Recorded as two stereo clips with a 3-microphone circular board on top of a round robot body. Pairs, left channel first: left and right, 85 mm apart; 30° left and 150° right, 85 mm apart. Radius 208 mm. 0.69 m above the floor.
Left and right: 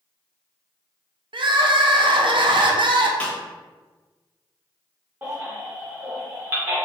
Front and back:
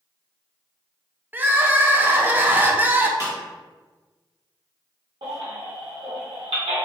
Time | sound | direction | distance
1.3 | crying | 80° right | 0.6 m
3.2 | a snare drum | 165° left | 1.4 m
5.2 | a baby crying | 160° right | 1.2 m